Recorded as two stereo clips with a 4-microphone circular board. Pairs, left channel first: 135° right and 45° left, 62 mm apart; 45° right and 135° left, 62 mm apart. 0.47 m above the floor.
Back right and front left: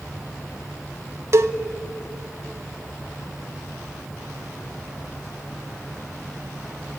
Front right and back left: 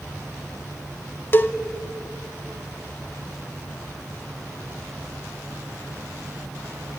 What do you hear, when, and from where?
1.3 s a cowbell: 10° left, 0.7 m